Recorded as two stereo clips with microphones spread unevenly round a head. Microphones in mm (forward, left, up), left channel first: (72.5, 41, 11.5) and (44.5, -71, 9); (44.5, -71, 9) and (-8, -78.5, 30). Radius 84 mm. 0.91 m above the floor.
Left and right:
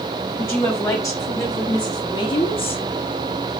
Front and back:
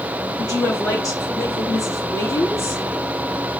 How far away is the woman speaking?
About 3 m.